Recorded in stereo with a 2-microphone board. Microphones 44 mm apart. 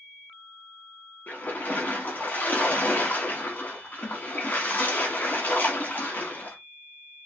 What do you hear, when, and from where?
1.3 s a splash: 40° left (ahead or behind), 1.3 m